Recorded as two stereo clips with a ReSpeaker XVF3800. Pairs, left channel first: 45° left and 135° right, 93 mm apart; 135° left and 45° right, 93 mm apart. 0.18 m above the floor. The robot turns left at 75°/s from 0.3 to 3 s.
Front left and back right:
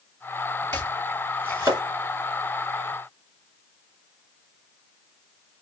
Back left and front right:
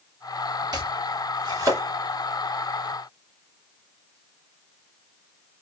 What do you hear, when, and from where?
0.7 s chopping: 20° right, 2.5 m; by 1.8 s 100° right, 2.5 m